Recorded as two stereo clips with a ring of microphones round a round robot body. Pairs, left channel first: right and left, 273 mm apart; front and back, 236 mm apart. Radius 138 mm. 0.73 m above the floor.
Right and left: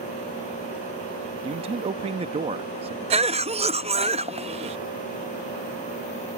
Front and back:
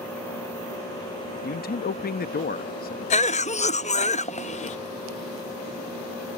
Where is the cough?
40° left.